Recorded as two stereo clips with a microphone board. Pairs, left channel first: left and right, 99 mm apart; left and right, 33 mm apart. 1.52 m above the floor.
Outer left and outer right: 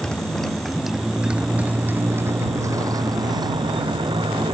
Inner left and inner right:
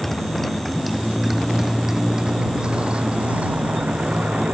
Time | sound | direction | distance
0.0 | a motorcycle | 10° left (ahead or behind) | ?